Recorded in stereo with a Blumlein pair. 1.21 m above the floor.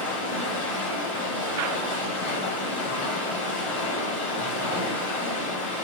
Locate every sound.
0.0 s running water: 65° left, 1.2 m